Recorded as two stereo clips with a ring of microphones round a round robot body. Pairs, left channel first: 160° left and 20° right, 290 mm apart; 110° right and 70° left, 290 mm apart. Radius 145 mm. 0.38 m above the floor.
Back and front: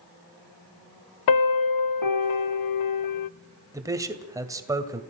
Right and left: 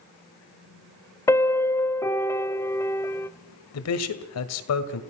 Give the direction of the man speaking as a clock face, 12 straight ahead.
3 o'clock.